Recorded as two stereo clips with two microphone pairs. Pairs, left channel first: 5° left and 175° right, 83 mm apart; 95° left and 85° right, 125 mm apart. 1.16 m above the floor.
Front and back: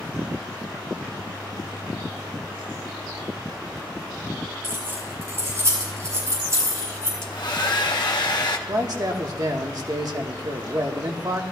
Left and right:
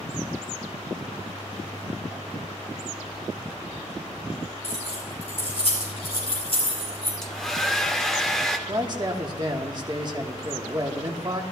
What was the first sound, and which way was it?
Keys jangling, 125° left.